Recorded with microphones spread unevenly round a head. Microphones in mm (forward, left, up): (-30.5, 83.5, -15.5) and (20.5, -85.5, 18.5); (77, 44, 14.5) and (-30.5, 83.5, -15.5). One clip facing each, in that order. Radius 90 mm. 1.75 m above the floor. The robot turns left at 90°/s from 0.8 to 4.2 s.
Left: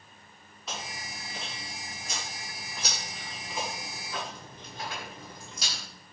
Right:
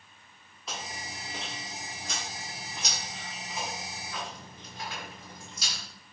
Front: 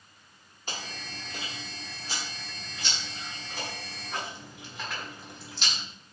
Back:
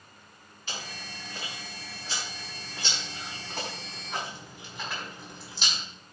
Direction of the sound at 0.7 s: 15° left.